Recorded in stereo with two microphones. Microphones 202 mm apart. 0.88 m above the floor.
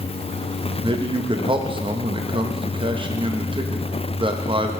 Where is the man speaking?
25° right (ahead or behind), 0.7 m.